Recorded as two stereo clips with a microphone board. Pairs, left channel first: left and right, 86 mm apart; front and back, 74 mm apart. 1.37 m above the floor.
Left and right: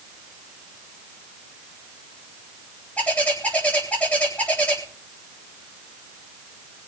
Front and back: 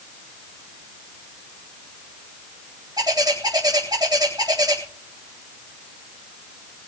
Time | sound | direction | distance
3.0 | a bird | 165° left | 3.5 m